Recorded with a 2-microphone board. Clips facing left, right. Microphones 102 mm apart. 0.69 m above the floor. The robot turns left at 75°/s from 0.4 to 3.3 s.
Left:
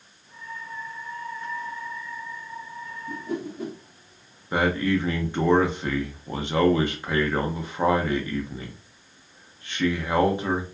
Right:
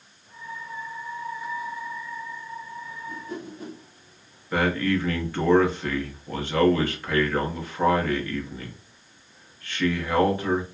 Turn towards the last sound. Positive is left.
turn(degrees=20)  # may be behind; listen again after turning